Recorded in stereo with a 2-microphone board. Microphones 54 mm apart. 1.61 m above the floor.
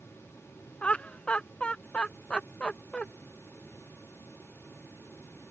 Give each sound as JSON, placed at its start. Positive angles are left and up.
{"t": 0.8, "sound": "laughter", "side_deg": 20}